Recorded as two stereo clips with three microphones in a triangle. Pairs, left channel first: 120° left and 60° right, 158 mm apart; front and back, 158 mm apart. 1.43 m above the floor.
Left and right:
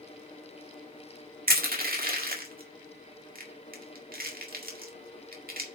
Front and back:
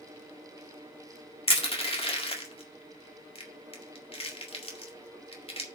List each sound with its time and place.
1.5 s crushing: 50° right, 1.8 m